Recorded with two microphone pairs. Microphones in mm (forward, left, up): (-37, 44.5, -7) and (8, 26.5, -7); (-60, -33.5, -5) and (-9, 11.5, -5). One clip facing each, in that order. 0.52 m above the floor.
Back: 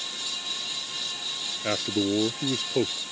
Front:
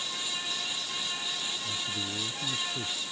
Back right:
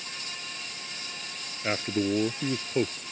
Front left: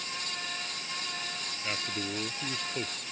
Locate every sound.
1.6 s a man speaking: 170° left